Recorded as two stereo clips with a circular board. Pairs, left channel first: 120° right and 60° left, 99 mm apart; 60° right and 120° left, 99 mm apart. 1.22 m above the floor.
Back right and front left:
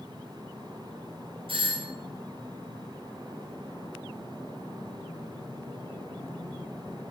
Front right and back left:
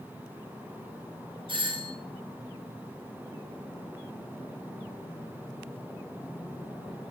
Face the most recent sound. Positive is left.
turn(degrees=85)